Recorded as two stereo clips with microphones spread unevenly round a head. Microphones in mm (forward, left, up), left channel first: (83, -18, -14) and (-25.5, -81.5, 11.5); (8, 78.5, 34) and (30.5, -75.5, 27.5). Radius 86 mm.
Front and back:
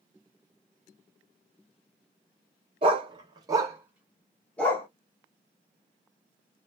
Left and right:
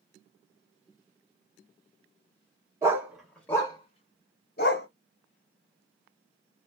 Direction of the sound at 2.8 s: 155° right.